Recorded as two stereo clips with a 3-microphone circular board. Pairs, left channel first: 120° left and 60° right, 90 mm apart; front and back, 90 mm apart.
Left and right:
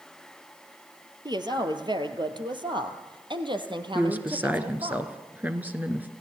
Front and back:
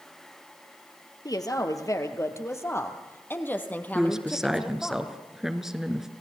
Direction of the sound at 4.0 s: 100° right.